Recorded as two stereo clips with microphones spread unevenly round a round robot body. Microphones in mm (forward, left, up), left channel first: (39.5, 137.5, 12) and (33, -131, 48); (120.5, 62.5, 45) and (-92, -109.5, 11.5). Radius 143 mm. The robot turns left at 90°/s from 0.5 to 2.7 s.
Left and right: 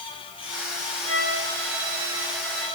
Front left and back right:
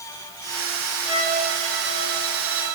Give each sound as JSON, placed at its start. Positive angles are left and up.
{"t": 1.0, "sound": "a violin", "azimuth_deg": -15, "distance_m": 6.0}